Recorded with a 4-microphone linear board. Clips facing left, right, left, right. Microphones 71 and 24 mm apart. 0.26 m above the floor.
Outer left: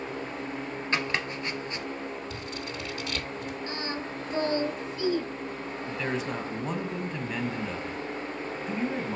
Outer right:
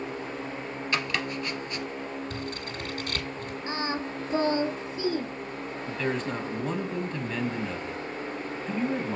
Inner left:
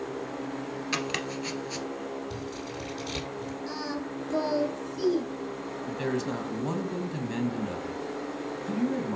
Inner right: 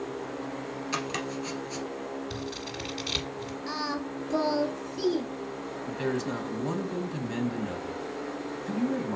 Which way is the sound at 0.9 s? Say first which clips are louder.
Even, inner left 1 dB; 30° left (ahead or behind).